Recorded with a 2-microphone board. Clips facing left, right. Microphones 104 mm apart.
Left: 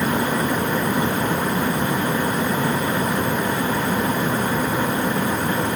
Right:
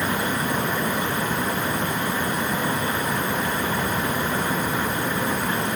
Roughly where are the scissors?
I don't hear scissors.